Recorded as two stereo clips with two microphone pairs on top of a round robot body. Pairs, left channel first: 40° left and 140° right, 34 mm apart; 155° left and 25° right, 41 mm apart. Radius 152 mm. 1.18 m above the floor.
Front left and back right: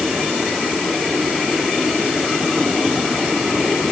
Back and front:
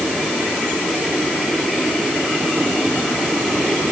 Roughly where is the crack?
No crack in this recording.